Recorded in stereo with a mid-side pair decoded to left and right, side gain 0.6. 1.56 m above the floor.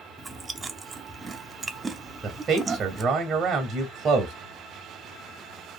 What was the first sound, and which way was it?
Chewing, 25° right.